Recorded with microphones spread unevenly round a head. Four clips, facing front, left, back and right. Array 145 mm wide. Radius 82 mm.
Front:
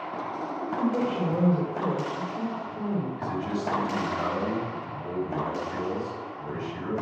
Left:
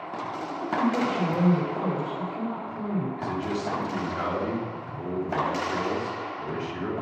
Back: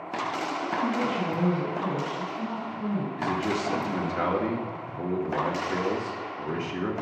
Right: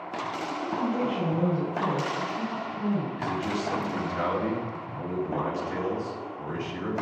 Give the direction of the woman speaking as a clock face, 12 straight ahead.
11 o'clock.